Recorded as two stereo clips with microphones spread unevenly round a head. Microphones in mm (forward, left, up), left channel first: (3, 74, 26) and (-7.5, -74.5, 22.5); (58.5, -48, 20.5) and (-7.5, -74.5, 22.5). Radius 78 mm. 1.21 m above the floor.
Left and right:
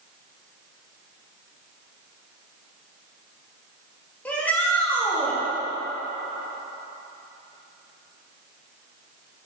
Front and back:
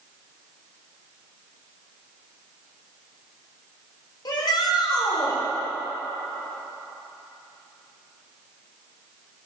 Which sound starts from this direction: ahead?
A shout, at 4.2 s.